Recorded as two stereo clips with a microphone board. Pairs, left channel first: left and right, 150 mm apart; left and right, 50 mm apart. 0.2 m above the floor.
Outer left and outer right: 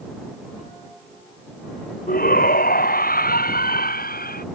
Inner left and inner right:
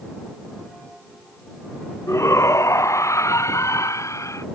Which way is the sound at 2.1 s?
80° left.